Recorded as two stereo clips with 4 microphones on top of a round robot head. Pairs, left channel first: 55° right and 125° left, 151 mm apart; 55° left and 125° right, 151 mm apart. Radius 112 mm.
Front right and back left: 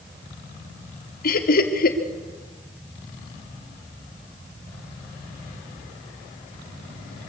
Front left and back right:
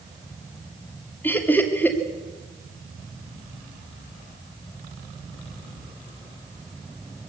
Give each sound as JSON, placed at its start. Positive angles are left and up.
{"t": 1.2, "sound": "laughter", "azimuth_deg": -25, "distance_m": 2.5}